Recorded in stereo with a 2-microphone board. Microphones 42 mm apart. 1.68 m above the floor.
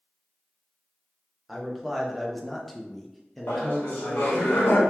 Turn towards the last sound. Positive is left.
turn(degrees=85)